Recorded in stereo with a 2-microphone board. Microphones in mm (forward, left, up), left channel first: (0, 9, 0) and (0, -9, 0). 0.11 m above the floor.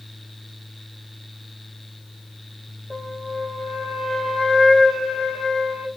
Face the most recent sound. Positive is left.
turn(degrees=15)  # may be behind; listen again after turning